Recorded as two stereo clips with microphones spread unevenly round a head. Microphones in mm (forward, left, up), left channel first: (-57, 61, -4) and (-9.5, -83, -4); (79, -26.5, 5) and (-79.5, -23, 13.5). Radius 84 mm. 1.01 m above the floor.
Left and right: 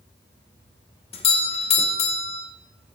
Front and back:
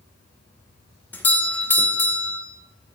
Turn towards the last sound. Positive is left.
turn(degrees=70)